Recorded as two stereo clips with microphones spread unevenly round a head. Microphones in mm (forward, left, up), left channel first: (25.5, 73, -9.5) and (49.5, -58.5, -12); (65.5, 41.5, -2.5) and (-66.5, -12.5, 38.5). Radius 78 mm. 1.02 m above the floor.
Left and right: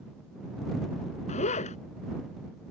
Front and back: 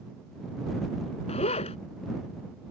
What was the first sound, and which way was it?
A zipper, 70° left.